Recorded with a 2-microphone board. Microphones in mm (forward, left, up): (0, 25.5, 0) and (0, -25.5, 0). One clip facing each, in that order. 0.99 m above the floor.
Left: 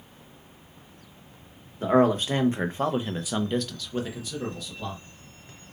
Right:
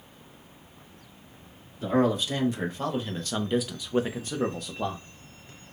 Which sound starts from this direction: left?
A man speaking, at 1.8 s.